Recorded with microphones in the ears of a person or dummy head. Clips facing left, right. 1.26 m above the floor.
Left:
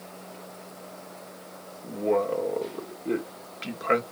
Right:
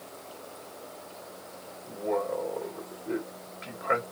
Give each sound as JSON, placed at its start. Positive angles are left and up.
{"t": 1.8, "sound": "a man speaking", "side_deg": 45, "distance_m": 1.7}